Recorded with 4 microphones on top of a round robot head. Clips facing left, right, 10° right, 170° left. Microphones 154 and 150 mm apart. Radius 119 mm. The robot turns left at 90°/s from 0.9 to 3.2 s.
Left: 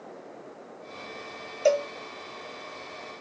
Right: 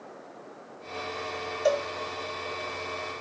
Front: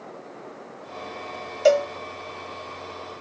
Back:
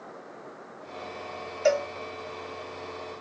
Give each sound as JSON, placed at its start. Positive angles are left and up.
{"t": 1.6, "sound": "a cowbell", "azimuth_deg": 30, "distance_m": 0.8}